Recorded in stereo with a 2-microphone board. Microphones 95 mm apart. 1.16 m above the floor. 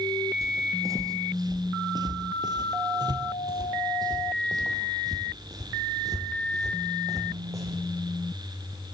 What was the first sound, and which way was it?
Footsteps, 35° right (ahead or behind).